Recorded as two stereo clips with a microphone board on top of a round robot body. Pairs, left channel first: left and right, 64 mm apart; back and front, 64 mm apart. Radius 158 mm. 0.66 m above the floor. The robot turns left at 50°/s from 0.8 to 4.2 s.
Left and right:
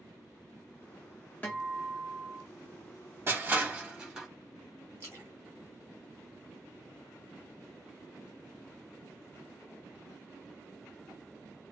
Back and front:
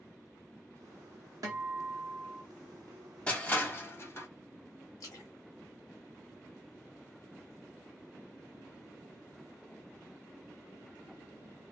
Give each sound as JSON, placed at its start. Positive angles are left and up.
{"t": 1.4, "sound": "a guitar", "azimuth_deg": 25, "distance_m": 1.3}
{"t": 3.3, "sound": "crushing", "azimuth_deg": -120, "distance_m": 1.2}
{"t": 5.0, "sound": "a splash", "azimuth_deg": -140, "distance_m": 0.6}